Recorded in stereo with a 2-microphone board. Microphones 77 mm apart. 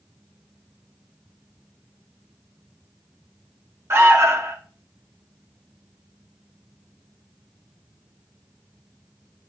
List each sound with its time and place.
3.9 s an alarm: 35° right (ahead or behind), 0.8 m